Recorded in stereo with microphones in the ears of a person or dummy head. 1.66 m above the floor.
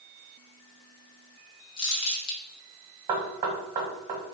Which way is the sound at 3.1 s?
20° right (ahead or behind).